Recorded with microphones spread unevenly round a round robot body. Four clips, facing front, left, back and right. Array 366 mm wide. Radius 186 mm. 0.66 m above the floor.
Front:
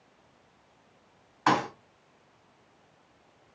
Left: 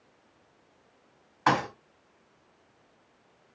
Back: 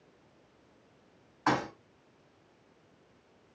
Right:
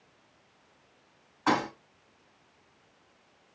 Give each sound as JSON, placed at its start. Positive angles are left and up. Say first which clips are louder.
{"t": 1.5, "sound": "a thud", "louder": "left 2 dB, front 4 dB", "azimuth_deg": 75, "distance_m": 2.5}